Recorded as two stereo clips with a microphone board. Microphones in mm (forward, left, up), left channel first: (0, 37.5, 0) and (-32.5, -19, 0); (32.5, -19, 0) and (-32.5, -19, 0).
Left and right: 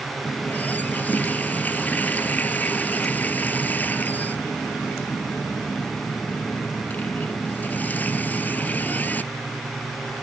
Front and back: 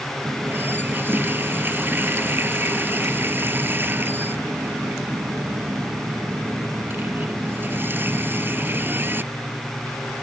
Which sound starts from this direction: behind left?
A running tap, at 0.2 s.